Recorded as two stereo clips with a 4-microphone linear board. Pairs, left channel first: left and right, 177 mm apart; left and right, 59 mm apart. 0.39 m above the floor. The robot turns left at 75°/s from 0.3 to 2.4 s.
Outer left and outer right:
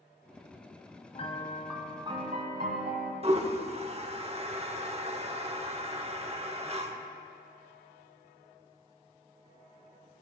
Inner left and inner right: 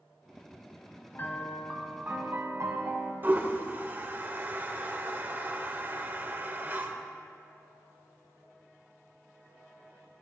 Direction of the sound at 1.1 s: 40° left.